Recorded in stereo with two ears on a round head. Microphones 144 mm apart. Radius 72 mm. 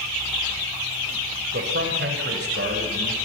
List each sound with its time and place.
1.5 s a man speaking: 70° right (ahead or behind), 3.5 m; by 3.2 s 75° right (ahead or behind), 5.5 m